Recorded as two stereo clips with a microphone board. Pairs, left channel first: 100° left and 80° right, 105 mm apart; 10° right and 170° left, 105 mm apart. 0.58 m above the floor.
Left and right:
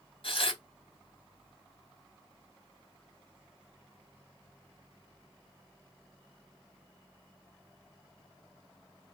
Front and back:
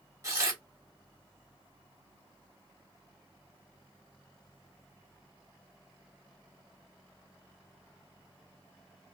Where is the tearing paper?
110° left, 1.6 m.